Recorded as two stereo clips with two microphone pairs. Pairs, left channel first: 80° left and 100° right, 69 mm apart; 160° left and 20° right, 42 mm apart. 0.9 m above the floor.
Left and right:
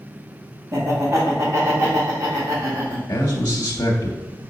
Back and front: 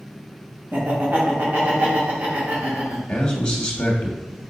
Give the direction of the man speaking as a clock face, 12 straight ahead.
9 o'clock.